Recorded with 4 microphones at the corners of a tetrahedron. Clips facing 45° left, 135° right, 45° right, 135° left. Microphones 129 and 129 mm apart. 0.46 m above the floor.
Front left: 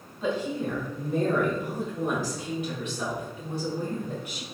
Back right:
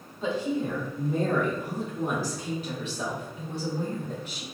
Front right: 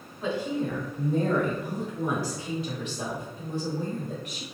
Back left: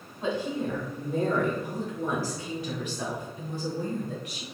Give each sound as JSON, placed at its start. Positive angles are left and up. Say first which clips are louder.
{"t": 0.2, "sound": "a woman speaking", "louder": "even, front right 1 dB", "azimuth_deg": -175, "distance_m": 1.5}